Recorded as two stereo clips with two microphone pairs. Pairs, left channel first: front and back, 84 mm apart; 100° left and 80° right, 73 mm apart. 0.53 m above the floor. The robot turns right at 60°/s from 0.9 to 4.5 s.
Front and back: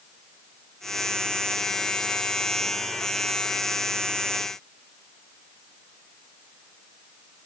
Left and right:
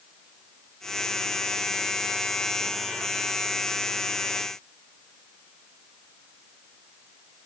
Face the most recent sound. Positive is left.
No sound to turn to.